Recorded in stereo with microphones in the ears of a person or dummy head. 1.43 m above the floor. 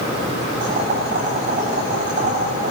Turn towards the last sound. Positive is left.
turn(degrees=-45)  # may be behind; listen again after turning